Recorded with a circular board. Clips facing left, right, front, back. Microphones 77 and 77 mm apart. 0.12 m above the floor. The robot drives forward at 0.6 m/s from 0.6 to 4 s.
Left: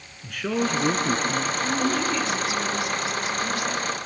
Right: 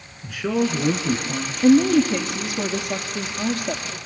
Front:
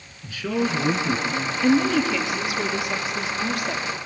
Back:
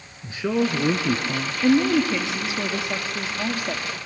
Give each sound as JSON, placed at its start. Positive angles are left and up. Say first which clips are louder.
{"t": 0.2, "sound": "a man speaking", "louder": "right 3 dB, back 2 dB", "azimuth_deg": -170, "distance_m": 1.4}
{"t": 1.6, "sound": "a woman speaking", "louder": "right 13 dB, back 1 dB", "azimuth_deg": -110, "distance_m": 2.5}